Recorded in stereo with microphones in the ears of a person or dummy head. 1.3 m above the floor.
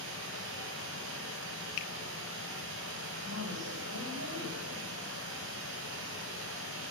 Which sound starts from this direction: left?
A finger snap, at 1.8 s.